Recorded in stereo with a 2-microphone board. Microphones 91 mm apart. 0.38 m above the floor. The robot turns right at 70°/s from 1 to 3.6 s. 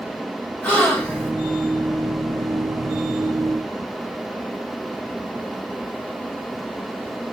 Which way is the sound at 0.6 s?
15° left (ahead or behind).